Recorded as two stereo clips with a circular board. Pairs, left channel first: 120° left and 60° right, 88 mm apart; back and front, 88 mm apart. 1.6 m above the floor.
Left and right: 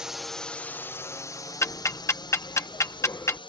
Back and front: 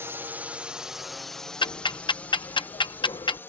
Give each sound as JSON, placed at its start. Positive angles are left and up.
{"t": 0.0, "sound": "a drone", "azimuth_deg": 15}
{"t": 1.6, "sound": "ticking", "azimuth_deg": 175}